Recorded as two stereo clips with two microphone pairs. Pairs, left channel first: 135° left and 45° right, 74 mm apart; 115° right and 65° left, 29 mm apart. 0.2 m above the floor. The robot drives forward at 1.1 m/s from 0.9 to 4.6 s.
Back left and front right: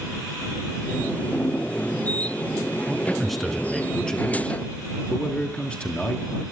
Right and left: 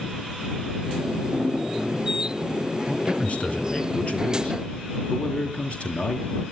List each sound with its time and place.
2.9 s a man speaking: 130° right, 2.5 m; by 6.3 s 155° right, 4 m